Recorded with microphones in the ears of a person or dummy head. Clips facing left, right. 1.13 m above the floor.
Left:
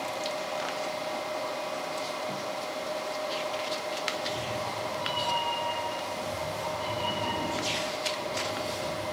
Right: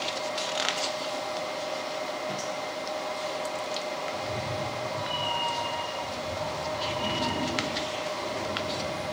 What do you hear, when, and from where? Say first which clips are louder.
4.1 s a cat meowing: right 1 dB; 25° right (ahead or behind), 4 m; by 9.0 s 30° right (ahead or behind), 7 m